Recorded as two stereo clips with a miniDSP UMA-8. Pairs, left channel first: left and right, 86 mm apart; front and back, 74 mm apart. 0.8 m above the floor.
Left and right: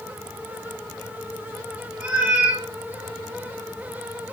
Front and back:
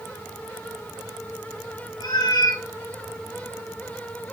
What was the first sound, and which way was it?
A cat meowing, 10° right.